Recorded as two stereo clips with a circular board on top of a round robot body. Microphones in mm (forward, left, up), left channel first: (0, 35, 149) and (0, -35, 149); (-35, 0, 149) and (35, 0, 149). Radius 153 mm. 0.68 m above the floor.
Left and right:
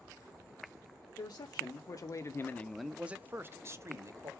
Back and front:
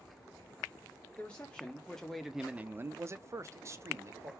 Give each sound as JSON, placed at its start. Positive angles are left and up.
{"t": 1.2, "sound": "a man speaking", "azimuth_deg": 110, "distance_m": 1.1}